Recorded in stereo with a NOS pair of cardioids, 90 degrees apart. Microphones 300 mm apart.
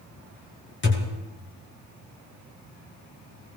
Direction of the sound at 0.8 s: 40° left.